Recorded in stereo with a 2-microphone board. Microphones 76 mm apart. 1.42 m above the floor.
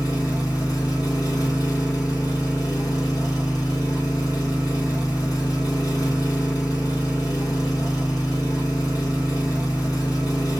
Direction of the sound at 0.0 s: 55° left (ahead or behind).